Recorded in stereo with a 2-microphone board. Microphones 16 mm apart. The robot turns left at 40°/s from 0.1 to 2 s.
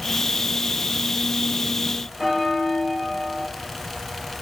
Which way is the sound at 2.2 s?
35° right (ahead or behind).